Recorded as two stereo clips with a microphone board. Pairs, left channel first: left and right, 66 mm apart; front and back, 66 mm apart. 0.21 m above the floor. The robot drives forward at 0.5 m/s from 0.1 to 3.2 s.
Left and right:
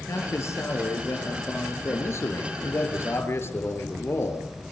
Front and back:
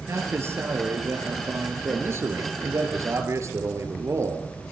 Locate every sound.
0.1 s a man speaking: 130° left, 5 m; by 2.9 s 145° left, 6 m
1.9 s a man speaking: 130° left, 4 m; by 4.6 s 140° left, 4.5 m